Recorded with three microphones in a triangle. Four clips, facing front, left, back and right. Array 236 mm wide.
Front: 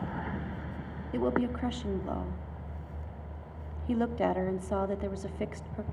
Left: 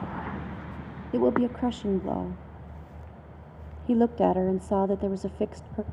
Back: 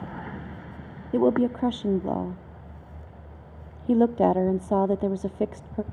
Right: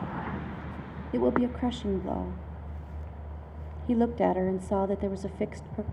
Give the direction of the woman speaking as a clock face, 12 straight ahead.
7 o'clock.